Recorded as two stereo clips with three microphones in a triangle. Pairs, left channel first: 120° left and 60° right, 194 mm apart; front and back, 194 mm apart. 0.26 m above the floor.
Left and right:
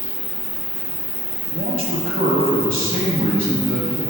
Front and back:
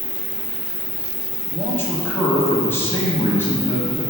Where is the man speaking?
75° right, 1.3 m.